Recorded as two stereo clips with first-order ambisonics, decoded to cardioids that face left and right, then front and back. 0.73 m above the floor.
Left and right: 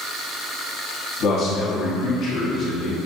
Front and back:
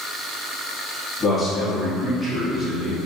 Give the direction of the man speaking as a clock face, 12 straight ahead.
9 o'clock.